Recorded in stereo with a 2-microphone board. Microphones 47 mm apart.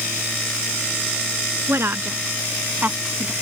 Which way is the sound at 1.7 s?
60° right (ahead or behind).